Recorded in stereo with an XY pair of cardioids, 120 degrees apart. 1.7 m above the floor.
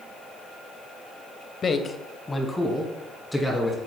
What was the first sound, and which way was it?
A man speaking, 35° left.